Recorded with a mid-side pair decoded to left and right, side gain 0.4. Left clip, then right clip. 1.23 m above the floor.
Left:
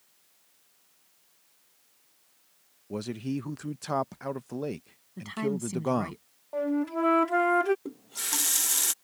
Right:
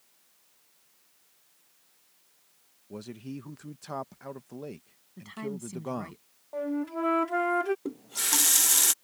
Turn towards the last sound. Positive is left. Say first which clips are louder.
# right 4 dB
turn(degrees=-30)